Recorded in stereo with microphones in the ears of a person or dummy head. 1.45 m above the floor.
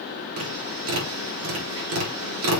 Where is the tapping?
75° right (ahead or behind), 4.5 m.